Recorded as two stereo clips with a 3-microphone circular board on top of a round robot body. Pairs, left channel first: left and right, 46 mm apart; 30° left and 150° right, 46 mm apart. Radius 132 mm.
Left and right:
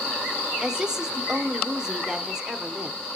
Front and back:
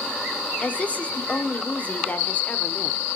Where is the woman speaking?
15° right, 1.1 m.